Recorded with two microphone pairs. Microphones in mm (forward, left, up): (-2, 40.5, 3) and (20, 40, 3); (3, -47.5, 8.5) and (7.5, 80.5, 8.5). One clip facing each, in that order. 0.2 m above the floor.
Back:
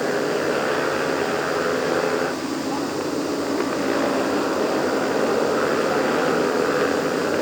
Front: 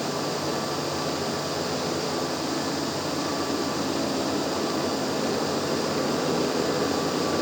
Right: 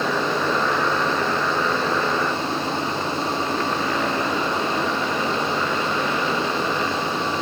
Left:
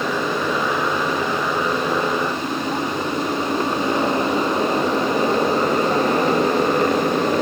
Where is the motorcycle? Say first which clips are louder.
Back 6 dB, even; 175° left; by 7.4 s 125° left.